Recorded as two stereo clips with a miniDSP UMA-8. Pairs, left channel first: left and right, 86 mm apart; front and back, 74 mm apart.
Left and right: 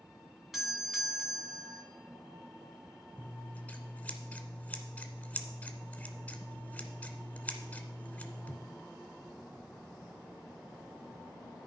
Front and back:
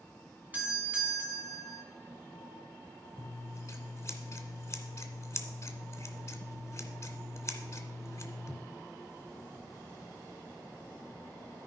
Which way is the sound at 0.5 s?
175° right.